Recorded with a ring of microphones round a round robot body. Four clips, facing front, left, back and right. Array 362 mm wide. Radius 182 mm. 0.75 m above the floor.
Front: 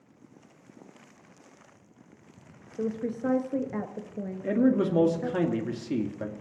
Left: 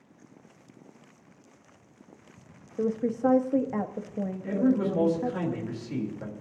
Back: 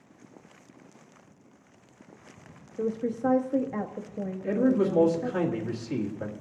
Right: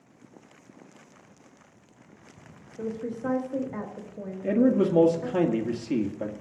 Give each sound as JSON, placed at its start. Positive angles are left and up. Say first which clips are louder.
{"t": 2.8, "sound": "a woman speaking", "louder": "left 6 dB, back 2 dB", "azimuth_deg": 75, "distance_m": 1.1}
{"t": 4.4, "sound": "a man speaking", "louder": "right 4 dB, even", "azimuth_deg": -55, "distance_m": 1.8}